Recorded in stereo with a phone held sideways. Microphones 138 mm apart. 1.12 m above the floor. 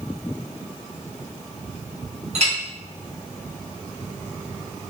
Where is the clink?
55° right (ahead or behind), 0.7 m.